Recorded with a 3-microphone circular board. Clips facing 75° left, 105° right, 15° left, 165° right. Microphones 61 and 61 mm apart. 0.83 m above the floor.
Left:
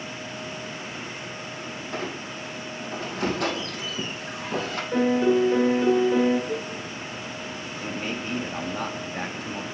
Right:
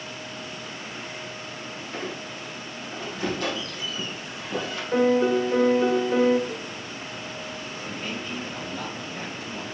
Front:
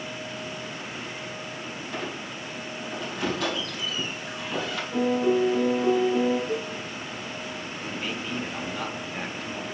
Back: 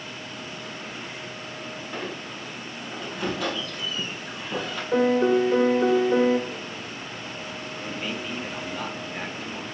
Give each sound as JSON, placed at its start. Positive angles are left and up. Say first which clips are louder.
{"t": 1.9, "sound": "a squeak", "louder": "left 1 dB, even", "azimuth_deg": 110, "distance_m": 3.0}
{"t": 4.9, "sound": "a piano", "louder": "right 1 dB, back 3 dB", "azimuth_deg": 170, "distance_m": 1.8}
{"t": 6.5, "sound": "a cowbell", "louder": "left 4 dB, front 6 dB", "azimuth_deg": 5, "distance_m": 0.7}
{"t": 7.8, "sound": "a man speaking", "louder": "left 4 dB, back 1 dB", "azimuth_deg": 105, "distance_m": 1.5}